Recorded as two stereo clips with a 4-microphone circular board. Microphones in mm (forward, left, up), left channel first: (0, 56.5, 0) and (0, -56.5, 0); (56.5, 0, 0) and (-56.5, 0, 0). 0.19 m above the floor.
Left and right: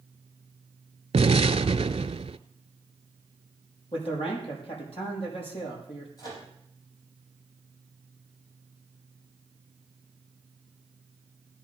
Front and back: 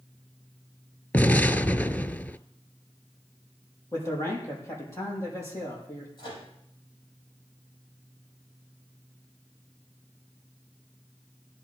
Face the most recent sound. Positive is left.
turn(degrees=40)